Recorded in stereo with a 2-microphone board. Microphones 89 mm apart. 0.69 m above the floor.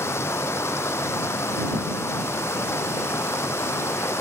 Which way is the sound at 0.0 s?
30° left (ahead or behind).